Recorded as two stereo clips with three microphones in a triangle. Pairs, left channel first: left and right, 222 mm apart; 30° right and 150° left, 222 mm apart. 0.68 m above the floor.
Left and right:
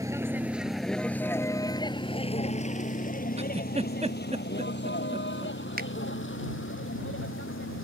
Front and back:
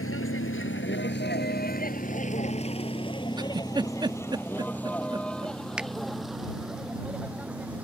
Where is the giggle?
140° right.